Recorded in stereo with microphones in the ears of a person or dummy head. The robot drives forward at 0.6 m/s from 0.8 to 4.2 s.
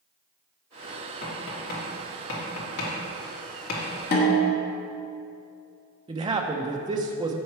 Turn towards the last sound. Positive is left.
turn(degrees=-25)  # may be behind; listen again after turning